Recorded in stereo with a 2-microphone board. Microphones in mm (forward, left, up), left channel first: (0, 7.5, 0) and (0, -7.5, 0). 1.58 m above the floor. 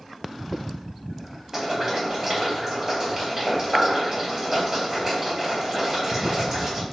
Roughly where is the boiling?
Right.